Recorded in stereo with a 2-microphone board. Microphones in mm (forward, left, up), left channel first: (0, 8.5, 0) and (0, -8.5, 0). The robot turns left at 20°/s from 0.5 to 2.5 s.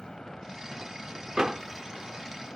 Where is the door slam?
40° right (ahead or behind).